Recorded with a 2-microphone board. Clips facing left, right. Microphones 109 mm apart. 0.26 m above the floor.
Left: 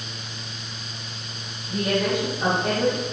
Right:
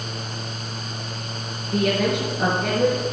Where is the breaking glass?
I don't hear breaking glass.